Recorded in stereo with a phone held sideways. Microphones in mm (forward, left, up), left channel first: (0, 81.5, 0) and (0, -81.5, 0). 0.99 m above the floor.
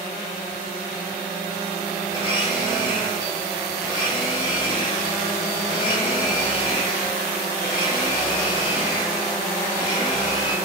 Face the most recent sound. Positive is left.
turn(degrees=25)  # may be behind; listen again after turning